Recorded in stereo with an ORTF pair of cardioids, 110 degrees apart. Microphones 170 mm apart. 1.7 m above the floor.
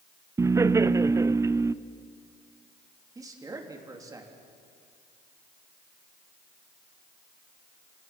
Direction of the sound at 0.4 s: 15° right.